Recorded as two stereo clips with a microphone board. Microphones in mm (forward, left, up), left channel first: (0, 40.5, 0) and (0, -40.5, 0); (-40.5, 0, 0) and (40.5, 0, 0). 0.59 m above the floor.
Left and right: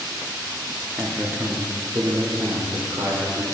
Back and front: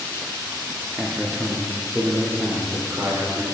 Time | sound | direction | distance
1.0 | a man speaking | 50° right | 0.6 m